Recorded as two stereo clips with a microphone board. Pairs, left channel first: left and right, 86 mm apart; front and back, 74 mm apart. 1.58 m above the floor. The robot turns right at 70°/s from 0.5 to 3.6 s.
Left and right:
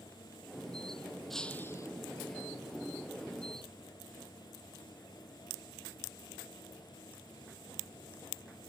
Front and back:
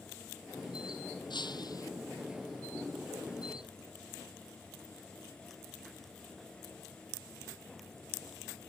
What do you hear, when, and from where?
1.3 s breaking glass: straight ahead; by 1.9 s 40° left